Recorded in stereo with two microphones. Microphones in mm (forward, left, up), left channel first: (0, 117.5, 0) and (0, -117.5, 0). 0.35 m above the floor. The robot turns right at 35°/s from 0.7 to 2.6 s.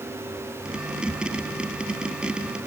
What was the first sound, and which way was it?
Only background noise.